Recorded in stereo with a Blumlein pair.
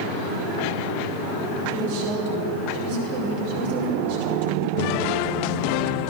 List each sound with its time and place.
1.7 s a woman speaking: 50° right, 5.5 m